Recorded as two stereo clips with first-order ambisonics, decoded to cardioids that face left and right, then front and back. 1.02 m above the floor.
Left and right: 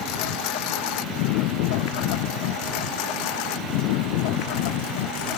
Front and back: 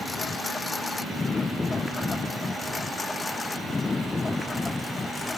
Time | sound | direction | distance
0.0 | a lawn mower | 75° left | ?